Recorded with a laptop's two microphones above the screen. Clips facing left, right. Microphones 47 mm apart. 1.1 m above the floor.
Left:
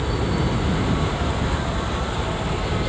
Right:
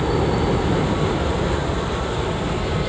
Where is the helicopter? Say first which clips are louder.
Right 4 dB; 45° right (ahead or behind); by 2.9 s 35° right (ahead or behind).